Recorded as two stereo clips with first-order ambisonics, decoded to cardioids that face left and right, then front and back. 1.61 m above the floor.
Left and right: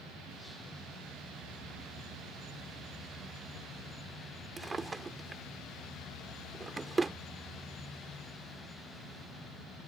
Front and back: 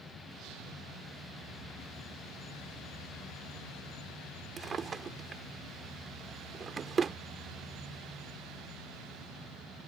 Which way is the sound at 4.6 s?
145° right.